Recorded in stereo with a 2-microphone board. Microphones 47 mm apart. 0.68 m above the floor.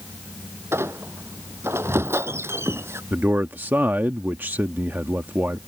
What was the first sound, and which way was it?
A squeak, 65° right (ahead or behind).